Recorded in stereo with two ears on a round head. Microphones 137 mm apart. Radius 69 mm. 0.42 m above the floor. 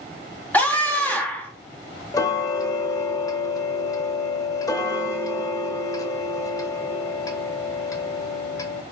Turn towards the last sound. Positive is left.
turn(degrees=20)  # may be behind; listen again after turning